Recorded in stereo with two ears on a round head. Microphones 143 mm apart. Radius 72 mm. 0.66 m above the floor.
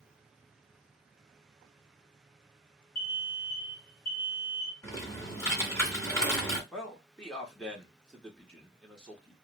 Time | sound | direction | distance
3.0 | an alarm | 60° left (ahead or behind) | 0.8 m
4.8 | typing on a keyboard | 15° left (ahead or behind) | 2 m
6.7 | a man speaking | 5° left (ahead or behind) | 1.3 m